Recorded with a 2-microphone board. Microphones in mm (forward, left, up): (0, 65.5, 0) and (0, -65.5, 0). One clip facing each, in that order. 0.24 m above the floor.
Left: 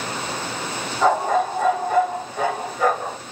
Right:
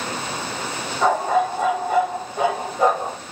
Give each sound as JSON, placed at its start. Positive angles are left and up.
{"t": 1.0, "sound": "a dog barking", "side_deg": -5, "distance_m": 2.5}